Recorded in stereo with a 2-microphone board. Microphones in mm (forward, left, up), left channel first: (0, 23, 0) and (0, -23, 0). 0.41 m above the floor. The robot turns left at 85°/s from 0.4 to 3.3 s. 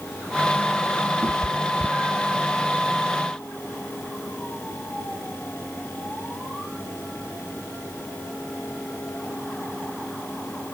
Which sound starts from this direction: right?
A cat meowing, at 1.2 s.